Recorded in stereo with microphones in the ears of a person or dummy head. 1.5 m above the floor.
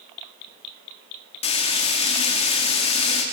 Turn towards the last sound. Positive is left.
turn(degrees=30)  # may be behind; listen again after turning